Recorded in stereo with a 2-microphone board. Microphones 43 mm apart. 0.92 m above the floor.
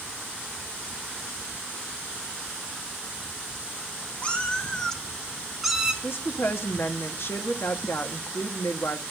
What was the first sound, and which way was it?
A cat meowing, 25° left (ahead or behind).